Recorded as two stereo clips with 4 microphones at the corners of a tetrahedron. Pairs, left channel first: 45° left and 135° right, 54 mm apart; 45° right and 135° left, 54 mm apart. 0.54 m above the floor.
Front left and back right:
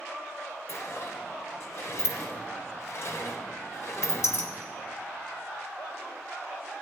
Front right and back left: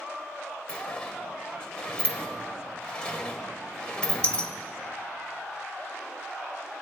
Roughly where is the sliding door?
Ahead left.